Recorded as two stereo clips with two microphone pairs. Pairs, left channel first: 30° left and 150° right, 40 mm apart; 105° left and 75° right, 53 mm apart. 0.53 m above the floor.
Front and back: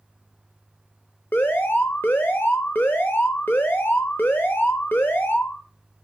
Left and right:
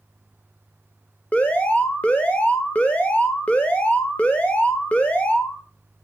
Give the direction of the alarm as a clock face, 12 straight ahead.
10 o'clock.